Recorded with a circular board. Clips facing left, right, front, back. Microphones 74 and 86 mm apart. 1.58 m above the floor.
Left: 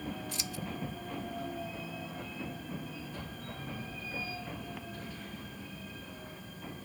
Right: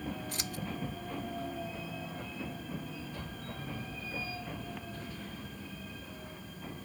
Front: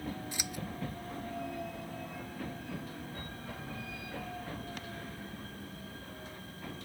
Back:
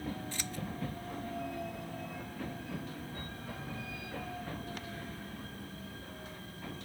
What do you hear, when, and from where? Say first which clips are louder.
0.3 s scissors: right 1 dB, even; 75° right